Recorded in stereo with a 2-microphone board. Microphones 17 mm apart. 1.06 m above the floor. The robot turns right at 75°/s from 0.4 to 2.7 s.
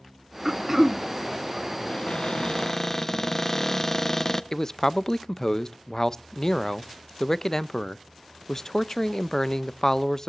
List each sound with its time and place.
0.5 s throat clearing: 70° right, 0.6 m; by 1.0 s 30° right, 0.6 m
1.9 s a cupboard door: 90° left, 0.7 m; by 4.4 s 150° left, 0.7 m
4.5 s a man speaking: 35° left (ahead or behind), 0.5 m